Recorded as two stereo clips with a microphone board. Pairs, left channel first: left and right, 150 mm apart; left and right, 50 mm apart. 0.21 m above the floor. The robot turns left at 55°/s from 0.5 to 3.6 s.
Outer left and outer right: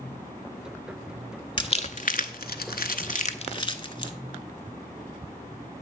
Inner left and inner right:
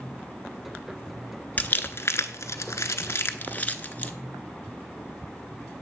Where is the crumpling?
35° left (ahead or behind), 0.5 m.